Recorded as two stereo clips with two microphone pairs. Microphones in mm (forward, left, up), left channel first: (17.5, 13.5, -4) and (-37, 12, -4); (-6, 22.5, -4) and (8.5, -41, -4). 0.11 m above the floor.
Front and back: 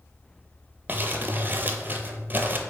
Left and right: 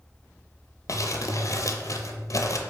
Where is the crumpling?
130° left, 0.5 m.